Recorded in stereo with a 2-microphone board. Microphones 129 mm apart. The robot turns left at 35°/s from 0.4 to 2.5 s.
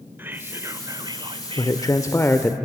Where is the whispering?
20° right, 1.2 m; by 2.3 s 85° right, 1.2 m.